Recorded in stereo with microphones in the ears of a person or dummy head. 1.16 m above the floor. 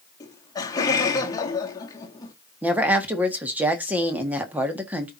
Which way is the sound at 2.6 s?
10° right (ahead or behind).